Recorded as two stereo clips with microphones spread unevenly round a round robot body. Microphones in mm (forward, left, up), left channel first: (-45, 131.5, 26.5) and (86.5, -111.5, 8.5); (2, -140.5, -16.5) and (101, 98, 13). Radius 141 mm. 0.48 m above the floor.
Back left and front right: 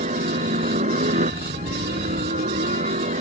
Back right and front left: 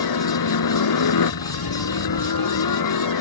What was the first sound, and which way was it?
A helicopter, 130° right.